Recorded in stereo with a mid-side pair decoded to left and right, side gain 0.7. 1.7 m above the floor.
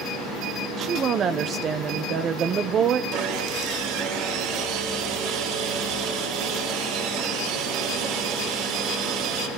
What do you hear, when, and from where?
0.8 s a woman speaking: 40° right, 1.2 m
3.1 s sawing: 65° right, 6 m